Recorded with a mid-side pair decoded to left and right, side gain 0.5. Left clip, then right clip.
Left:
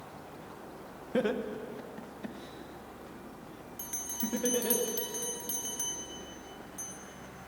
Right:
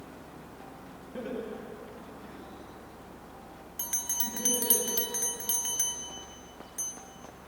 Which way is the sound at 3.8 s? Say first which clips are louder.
Right 5 dB; 45° right.